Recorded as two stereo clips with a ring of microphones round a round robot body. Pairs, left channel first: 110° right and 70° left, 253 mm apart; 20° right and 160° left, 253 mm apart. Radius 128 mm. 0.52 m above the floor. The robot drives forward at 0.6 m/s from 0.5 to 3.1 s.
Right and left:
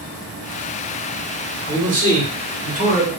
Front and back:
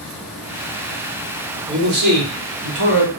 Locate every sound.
1.7 s a man speaking: 110° left, 1.3 m; by 3.1 s 145° left, 1.8 m